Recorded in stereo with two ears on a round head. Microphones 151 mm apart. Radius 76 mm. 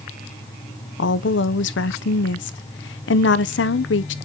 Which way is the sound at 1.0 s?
75° left (ahead or behind).